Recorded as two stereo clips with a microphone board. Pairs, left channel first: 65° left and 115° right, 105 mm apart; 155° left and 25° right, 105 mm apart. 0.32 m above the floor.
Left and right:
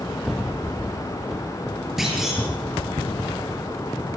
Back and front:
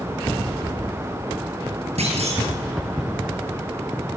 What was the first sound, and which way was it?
A clunk, 25° right.